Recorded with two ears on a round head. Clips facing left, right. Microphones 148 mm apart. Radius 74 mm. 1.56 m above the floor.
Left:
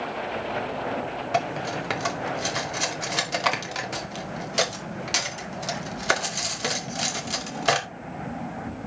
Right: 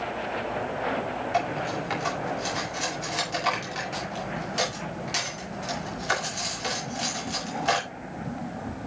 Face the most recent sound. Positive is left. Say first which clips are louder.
# left 2 dB
turn(degrees=65)  # may be behind; listen again after turning